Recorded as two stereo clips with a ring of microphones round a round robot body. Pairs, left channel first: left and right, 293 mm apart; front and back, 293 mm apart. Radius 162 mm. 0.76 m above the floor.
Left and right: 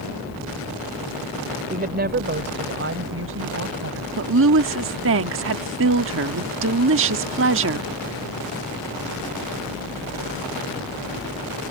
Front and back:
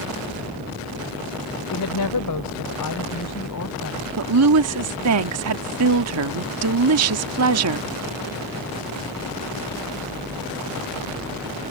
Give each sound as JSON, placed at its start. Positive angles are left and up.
{"t": 1.7, "sound": "a woman speaking", "azimuth_deg": -30}
{"t": 4.2, "sound": "a woman speaking", "azimuth_deg": -140}